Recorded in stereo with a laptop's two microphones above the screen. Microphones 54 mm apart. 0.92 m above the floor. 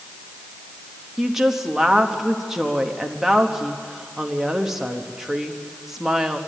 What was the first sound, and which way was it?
A woman speaking, 5° right (ahead or behind).